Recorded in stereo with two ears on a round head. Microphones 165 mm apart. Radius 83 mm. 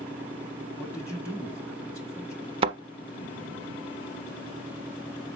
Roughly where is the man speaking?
Centre.